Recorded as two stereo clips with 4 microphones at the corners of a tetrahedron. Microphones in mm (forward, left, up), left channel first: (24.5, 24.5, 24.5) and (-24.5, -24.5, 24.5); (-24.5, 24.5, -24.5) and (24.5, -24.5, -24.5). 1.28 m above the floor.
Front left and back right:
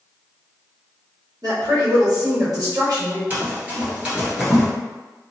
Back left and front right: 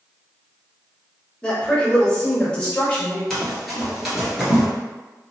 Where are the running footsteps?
150° right, 1.4 m; by 4.7 s 50° right, 1.2 m.